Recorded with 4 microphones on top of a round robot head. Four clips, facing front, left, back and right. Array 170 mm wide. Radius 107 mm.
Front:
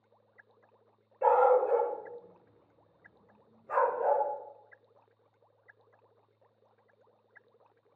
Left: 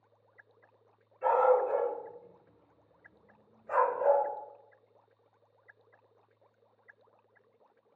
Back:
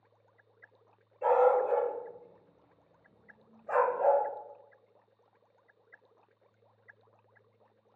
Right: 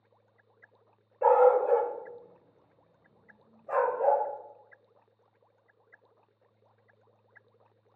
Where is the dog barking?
70° right, 0.8 m; by 4.2 s 155° right, 1.8 m.